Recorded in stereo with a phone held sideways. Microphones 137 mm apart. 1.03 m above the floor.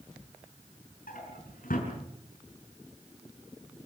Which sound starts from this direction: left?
A drawer, at 1.1 s.